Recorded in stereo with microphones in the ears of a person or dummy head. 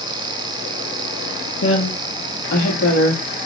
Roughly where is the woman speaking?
Left.